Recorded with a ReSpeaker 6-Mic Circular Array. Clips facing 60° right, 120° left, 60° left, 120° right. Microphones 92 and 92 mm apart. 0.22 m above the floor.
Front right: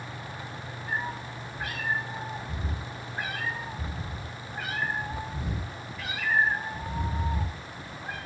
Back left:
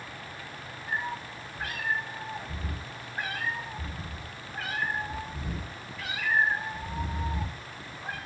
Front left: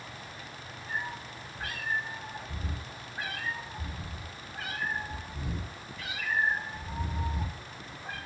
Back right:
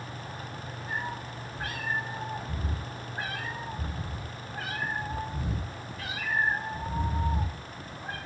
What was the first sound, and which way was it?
A cat meowing, 145° right.